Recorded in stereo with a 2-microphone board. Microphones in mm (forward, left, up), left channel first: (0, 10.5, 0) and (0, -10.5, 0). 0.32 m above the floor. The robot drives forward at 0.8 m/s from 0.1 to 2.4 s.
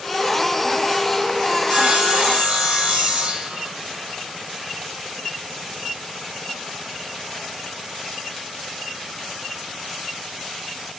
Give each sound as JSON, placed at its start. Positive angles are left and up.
{"t": 1.6, "sound": "sawing", "side_deg": -55, "distance_m": 6.0}